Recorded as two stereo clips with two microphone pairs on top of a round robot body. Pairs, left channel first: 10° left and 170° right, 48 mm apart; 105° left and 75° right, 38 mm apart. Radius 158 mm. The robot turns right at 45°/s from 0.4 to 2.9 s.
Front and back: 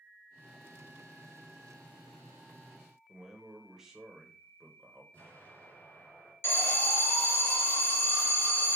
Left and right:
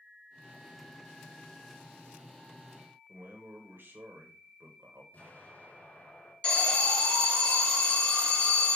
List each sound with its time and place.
3.1 s a man speaking: 90° right, 1.2 m
5.1 s an explosion: 60° left, 4 m
6.4 s an alarm: 50° left, 2.5 m